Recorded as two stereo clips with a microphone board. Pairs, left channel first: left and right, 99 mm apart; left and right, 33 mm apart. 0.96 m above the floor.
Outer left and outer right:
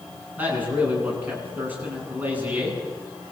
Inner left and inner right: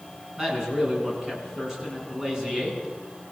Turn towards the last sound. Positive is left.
turn(degrees=-15)  # may be behind; listen again after turning